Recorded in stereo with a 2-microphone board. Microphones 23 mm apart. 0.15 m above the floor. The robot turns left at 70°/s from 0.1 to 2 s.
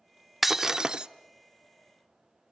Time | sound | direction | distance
0.4 | breaking glass | 5° right | 0.5 m